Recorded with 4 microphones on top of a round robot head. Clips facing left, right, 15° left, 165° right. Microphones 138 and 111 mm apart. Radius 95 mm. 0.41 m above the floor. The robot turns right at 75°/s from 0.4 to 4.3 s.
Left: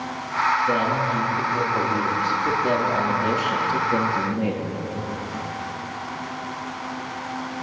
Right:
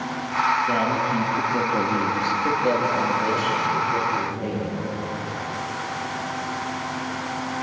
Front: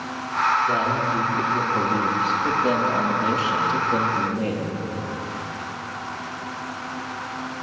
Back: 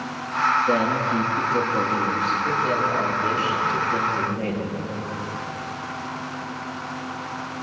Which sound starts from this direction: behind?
A man speaking, at 0.7 s.